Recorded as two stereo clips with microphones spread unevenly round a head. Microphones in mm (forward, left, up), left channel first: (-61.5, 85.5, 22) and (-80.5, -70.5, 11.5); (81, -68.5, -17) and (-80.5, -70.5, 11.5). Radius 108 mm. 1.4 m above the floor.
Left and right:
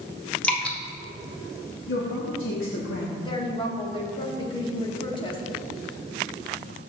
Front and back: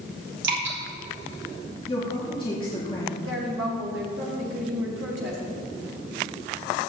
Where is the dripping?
165° left, 2 m.